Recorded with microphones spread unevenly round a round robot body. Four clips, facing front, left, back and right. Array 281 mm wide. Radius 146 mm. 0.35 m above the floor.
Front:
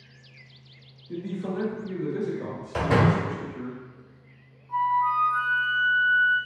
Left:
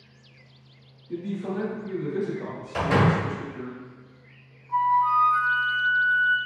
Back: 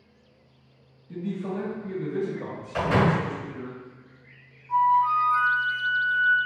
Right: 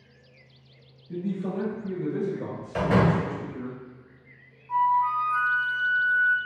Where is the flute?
100° right, 0.6 m.